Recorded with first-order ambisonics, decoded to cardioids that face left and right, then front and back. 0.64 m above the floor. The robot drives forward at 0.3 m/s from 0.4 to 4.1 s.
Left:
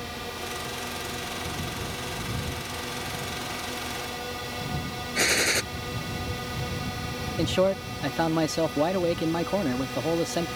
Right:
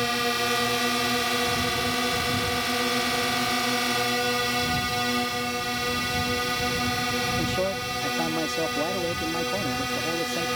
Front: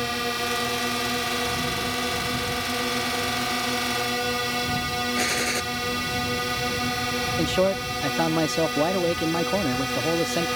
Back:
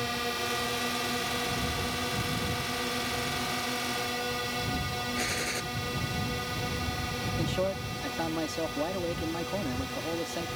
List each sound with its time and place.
0.0 s a drone: 65° right; by 10.6 s 40° right
5.2 s a gunshot: 65° left
7.4 s a man speaking: 25° left